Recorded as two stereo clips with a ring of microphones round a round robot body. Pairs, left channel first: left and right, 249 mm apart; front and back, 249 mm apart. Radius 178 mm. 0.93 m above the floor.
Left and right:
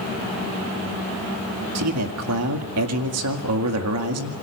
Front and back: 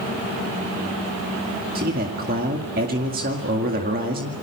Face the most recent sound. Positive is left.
turn(degrees=-120)